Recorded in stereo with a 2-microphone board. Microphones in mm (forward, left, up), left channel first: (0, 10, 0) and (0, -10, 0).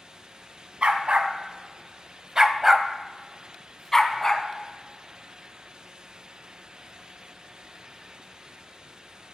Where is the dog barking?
70° right (ahead or behind), 1.1 m; by 4.5 s 20° left (ahead or behind), 1.4 m.